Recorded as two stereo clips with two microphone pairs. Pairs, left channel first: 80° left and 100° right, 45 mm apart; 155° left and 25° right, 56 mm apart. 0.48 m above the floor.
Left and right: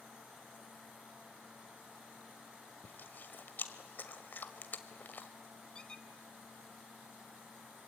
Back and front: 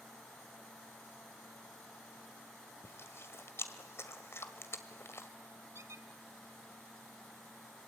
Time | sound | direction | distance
2.8 | chewing | 125° left | 1.7 m
5.8 | a squeak | 15° left | 0.9 m